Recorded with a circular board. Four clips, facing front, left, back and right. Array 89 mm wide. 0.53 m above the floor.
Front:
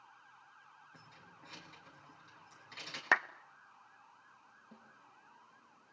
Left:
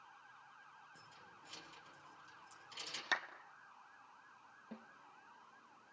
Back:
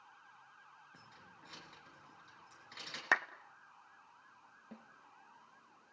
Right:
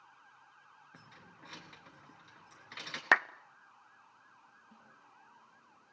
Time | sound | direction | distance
0.9 | keys jangling | 90° right | 4.5 m
3.1 | a clap | 80° right | 0.8 m
4.7 | a snare drum | 135° left | 4.5 m